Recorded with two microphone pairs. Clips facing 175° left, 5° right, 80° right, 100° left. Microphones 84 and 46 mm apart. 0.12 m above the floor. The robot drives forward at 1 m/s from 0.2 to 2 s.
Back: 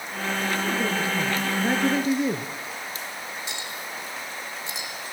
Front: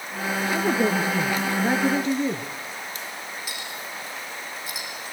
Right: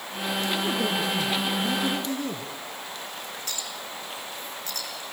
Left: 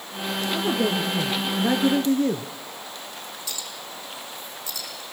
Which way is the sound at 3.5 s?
120° right.